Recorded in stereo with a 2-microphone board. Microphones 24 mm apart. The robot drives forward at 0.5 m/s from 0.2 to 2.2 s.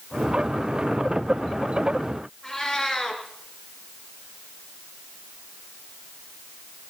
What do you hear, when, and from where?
2.4 s a cat meowing: 20° left (ahead or behind), 2.5 m